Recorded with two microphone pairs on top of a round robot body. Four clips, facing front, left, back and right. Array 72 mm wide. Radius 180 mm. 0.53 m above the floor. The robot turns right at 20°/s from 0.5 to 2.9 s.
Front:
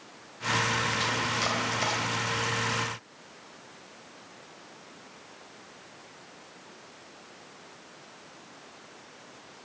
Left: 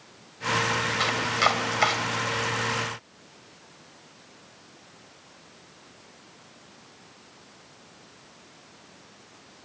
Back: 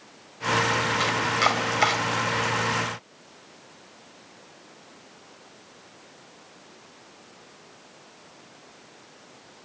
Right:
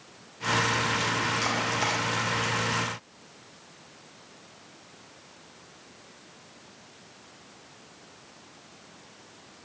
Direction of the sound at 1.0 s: 140° left.